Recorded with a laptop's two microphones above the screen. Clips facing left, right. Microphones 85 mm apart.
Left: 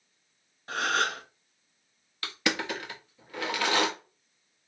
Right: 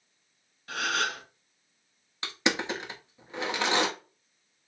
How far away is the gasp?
About 0.8 m.